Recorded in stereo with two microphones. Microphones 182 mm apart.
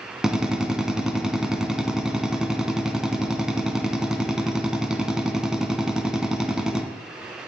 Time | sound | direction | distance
0.2 | a drill | 5° right (ahead or behind) | 1.9 m